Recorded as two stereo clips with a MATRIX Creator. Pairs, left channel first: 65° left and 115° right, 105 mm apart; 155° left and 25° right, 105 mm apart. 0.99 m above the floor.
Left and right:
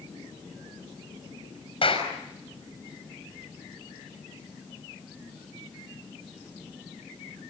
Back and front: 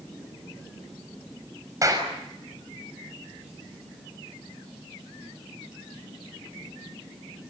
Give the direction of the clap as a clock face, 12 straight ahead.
11 o'clock.